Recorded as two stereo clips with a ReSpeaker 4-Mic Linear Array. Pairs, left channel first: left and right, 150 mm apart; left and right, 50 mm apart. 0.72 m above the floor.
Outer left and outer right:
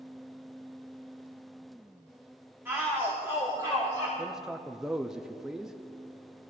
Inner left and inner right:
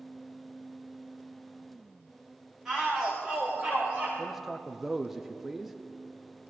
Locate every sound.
2.6 s a shout: 15° right (ahead or behind), 3.5 m; by 4.1 s 30° right (ahead or behind), 3.5 m
4.2 s a man speaking: 5° right (ahead or behind), 0.6 m